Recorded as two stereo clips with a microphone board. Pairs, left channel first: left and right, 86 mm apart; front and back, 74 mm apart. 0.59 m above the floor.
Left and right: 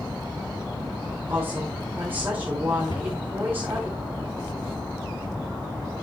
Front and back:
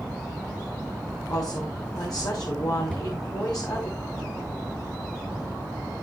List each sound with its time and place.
1.3 s a woman speaking: 25° right, 2 m
2.9 s a cupboard door: 80° left, 6 m